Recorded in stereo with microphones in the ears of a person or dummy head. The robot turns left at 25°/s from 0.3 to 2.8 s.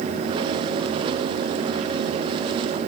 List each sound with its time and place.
Only background noise.